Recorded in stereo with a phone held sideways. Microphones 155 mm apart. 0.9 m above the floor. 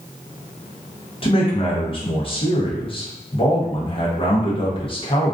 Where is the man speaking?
35° left (ahead or behind), 0.7 m.